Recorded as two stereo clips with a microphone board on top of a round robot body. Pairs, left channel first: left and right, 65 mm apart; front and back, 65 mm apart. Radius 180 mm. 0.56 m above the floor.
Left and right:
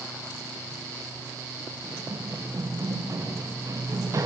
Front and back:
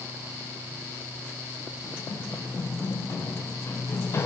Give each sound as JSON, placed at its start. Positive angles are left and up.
{"t": 1.8, "sound": "running footsteps", "azimuth_deg": -50, "distance_m": 7.0}